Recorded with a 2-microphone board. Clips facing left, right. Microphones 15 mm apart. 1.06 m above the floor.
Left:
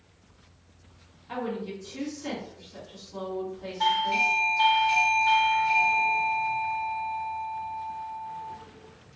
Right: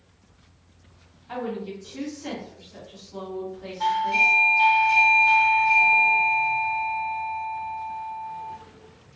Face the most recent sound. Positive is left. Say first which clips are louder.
# right 3 dB
turn(degrees=25)  # may be behind; listen again after turning